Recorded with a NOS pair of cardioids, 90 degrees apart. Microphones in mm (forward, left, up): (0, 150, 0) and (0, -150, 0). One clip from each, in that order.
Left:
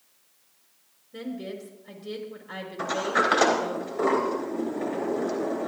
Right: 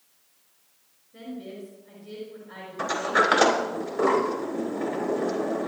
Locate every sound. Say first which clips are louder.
1.1 s a woman speaking: left 3 dB; 65° left, 5 m
2.8 s a sliding door: right 2 dB; 20° right, 3.5 m